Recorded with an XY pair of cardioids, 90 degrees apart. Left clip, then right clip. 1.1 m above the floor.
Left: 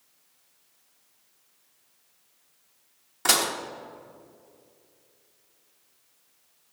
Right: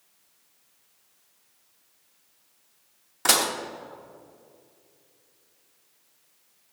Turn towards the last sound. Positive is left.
turn(degrees=-10)